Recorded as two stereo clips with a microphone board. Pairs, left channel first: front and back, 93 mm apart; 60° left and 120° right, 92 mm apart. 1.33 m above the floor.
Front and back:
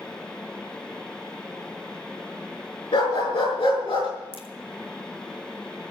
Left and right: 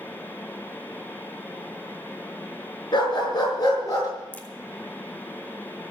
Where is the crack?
15° right, 1.6 m.